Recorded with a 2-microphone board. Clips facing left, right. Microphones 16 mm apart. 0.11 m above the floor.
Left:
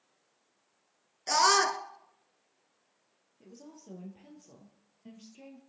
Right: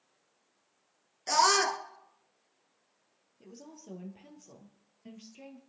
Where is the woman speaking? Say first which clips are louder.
Right 1 dB; 10° right (ahead or behind), 2.5 m.